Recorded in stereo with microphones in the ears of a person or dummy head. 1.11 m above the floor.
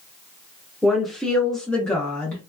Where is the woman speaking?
Centre (ahead or behind), 0.6 m; by 2.4 s 10° left (ahead or behind), 0.8 m.